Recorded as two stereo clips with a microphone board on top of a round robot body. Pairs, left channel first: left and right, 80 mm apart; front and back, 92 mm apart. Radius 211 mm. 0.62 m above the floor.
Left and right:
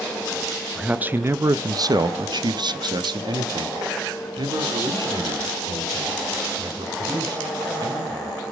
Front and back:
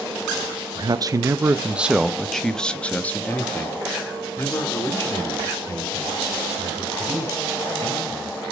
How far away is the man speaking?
About 0.8 m.